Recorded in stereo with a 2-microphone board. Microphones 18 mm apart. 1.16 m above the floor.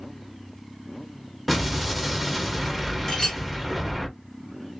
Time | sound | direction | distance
1.5 | an explosion | 5° left (ahead or behind) | 0.8 m
3.1 | a clink | 25° left (ahead or behind) | 1.3 m